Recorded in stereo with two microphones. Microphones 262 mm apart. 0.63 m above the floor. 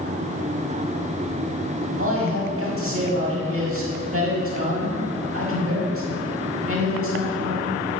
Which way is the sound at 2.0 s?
50° right (ahead or behind).